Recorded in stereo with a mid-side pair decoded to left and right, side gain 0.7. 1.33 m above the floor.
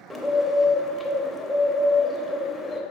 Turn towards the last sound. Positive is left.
turn(degrees=10)